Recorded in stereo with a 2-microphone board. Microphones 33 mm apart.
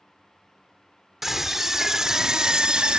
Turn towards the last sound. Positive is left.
turn(degrees=-30)  # may be behind; listen again after turning